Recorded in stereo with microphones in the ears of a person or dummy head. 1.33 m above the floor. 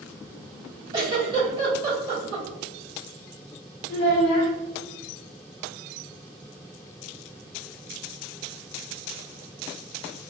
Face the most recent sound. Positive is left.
turn(degrees=50)  # may be behind; listen again after turning